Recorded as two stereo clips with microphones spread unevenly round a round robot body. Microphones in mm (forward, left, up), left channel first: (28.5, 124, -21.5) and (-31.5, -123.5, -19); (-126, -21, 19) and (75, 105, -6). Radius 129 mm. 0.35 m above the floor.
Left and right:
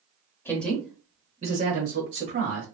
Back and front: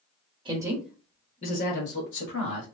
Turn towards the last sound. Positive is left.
turn(degrees=-140)